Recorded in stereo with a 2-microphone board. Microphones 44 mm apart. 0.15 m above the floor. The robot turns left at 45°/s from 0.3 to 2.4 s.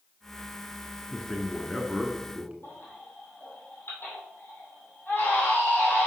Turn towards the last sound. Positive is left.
turn(degrees=55)  # may be behind; listen again after turning